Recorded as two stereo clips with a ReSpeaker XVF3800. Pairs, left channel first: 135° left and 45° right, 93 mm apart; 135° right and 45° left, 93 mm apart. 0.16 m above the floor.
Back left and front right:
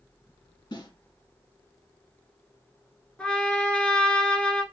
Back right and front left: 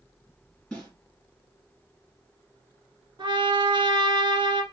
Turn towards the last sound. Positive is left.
turn(degrees=60)